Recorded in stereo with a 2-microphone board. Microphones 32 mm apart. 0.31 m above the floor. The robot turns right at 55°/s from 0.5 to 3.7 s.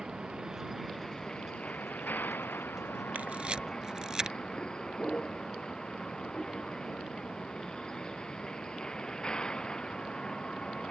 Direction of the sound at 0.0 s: 15° right.